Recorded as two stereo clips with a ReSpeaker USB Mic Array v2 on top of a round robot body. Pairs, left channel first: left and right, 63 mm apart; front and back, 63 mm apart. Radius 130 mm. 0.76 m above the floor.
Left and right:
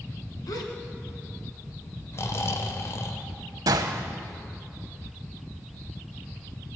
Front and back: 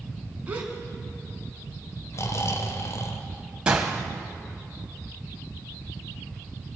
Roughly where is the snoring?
Ahead left.